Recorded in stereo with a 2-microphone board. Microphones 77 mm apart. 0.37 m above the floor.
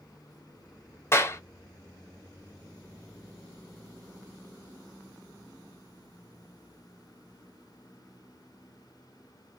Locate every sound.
1.1 s a clap: 35° left (ahead or behind), 1.3 m